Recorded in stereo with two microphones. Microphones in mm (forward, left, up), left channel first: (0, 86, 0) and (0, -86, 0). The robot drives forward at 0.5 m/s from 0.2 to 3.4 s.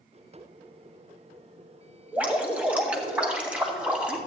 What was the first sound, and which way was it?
Dripping, 10° right (ahead or behind).